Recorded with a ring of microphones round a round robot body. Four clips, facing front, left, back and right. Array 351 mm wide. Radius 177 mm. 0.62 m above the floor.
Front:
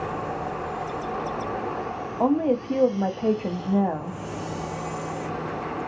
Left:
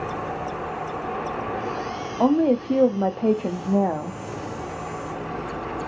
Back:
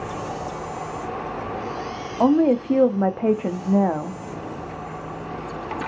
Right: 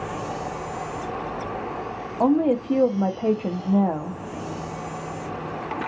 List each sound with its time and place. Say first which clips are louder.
2.2 s a woman speaking: left 1 dB, back 5 dB; 160° left, 0.6 m